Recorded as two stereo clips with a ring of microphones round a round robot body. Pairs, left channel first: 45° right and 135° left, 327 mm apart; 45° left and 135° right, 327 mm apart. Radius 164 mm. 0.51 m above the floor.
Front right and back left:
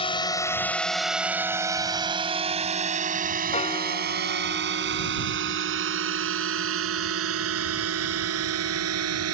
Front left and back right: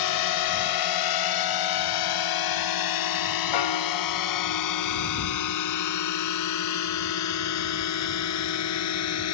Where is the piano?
25° left.